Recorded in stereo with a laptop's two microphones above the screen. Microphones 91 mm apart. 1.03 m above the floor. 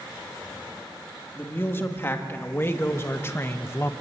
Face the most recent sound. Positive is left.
turn(degrees=30)  # may be behind; listen again after turning